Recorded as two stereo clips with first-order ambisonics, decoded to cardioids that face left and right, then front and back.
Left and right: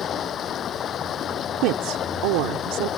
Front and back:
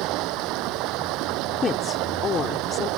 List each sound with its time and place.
0.0 s running water: 145° left
1.6 s a woman speaking: 70° right